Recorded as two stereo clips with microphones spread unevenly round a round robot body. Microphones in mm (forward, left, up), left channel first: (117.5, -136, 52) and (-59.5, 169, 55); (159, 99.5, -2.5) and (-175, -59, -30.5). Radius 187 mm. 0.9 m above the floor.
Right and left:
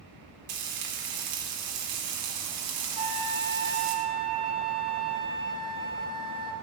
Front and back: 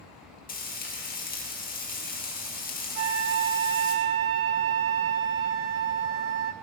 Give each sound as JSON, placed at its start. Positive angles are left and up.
{"t": 0.5, "sound": "frying", "azimuth_deg": 95, "distance_m": 2.5}
{"t": 3.0, "sound": "a flute", "azimuth_deg": -165, "distance_m": 1.1}